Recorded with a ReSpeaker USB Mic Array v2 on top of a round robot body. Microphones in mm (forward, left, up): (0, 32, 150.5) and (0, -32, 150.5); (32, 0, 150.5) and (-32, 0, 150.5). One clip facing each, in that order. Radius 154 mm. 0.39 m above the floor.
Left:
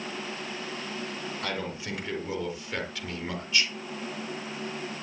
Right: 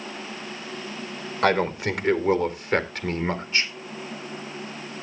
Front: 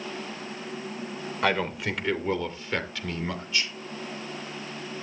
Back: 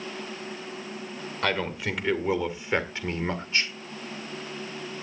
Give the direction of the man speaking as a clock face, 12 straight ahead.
3 o'clock.